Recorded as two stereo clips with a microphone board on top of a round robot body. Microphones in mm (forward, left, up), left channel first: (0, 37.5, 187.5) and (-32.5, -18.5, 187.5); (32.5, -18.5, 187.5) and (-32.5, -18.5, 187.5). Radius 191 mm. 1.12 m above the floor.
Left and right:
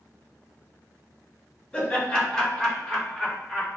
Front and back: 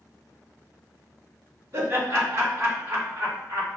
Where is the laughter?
140° left, 1.3 m; by 3.8 s 150° left, 2.5 m.